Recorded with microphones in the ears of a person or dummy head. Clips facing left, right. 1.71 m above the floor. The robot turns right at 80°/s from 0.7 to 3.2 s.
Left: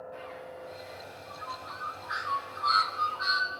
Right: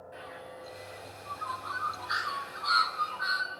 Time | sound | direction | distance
0.1 | a bird | 10° right (ahead or behind) | 6 m